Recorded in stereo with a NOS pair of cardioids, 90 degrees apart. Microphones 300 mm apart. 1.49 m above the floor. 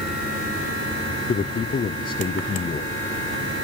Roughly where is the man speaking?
Ahead left.